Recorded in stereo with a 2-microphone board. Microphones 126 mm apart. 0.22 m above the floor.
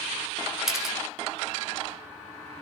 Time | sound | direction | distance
0.7 | a camera shutter | 5° right (ahead or behind) | 0.5 m